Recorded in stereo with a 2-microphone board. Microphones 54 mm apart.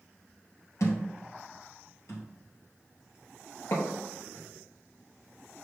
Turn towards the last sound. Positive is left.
turn(degrees=80)